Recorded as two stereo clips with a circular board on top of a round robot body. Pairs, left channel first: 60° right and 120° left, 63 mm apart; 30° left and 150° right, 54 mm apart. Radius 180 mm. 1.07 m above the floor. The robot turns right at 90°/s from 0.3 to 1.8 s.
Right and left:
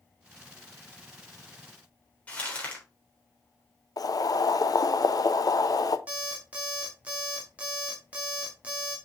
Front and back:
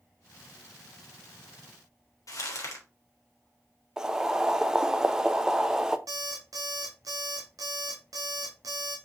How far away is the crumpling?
About 2.5 m.